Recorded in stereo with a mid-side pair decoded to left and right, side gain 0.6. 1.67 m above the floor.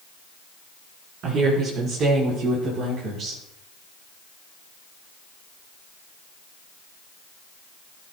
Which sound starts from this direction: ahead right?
A woman speaking, at 1.2 s.